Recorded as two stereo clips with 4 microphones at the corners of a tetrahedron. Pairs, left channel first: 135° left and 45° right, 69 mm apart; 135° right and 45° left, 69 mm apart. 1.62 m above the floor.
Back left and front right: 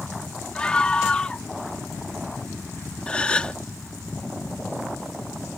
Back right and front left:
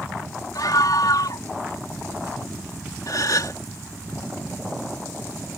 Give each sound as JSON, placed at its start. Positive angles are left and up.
{"t": 0.6, "sound": "a scream", "azimuth_deg": -150}
{"t": 3.1, "sound": "a gasp", "azimuth_deg": -155}